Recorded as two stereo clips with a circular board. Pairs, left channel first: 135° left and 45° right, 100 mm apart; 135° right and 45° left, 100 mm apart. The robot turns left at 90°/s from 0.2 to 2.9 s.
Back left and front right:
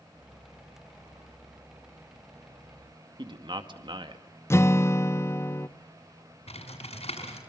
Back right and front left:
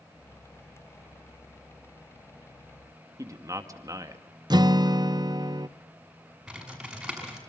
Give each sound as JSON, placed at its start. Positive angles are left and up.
{"t": 3.2, "sound": "a man speaking", "azimuth_deg": -10, "distance_m": 2.0}
{"t": 4.5, "sound": "a guitar", "azimuth_deg": 75, "distance_m": 0.6}
{"t": 6.5, "sound": "typing on a keyboard", "azimuth_deg": 130, "distance_m": 6.0}